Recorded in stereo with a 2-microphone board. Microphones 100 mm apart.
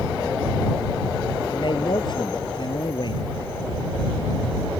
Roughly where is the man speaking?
Left.